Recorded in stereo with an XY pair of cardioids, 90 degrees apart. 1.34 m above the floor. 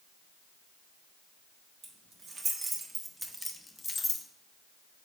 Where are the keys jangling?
60° right, 1.1 m; by 4.2 s 55° left, 0.7 m.